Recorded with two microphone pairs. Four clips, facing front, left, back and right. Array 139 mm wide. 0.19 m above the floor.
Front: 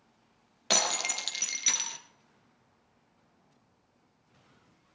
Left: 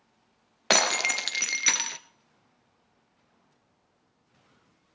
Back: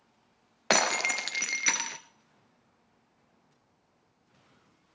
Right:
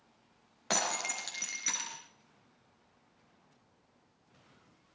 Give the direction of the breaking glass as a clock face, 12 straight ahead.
8 o'clock.